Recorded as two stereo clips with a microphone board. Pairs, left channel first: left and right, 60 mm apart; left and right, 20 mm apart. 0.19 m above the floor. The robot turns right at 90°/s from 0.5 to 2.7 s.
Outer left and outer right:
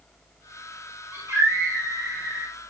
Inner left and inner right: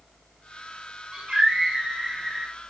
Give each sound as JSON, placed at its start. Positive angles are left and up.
{"t": 1.1, "sound": "a scream", "azimuth_deg": -140, "distance_m": 5.0}